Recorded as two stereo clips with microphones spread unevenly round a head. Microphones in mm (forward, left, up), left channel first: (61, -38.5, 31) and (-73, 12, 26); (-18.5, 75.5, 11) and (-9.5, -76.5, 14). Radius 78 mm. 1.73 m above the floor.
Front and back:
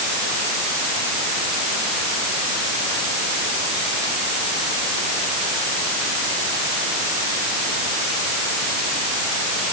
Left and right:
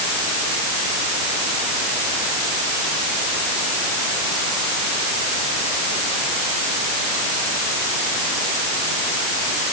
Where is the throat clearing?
No throat clearing in this recording.